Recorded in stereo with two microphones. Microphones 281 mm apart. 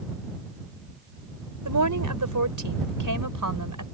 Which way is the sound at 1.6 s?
80° right.